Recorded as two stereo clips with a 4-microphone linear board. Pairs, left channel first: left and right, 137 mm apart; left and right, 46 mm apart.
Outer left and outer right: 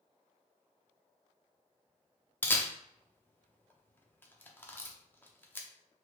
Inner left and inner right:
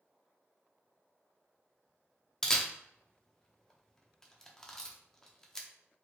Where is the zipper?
I don't hear a zipper.